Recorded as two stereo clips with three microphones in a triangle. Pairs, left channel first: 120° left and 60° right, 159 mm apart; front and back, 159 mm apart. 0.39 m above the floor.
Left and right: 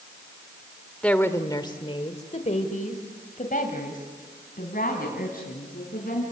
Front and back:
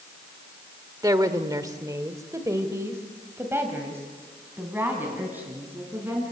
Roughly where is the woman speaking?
Behind.